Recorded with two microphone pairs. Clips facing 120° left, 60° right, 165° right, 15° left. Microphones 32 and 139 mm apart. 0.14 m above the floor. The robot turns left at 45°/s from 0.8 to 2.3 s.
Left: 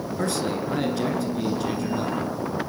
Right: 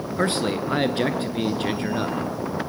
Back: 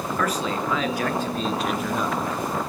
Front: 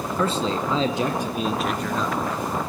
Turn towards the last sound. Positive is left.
turn(degrees=-100)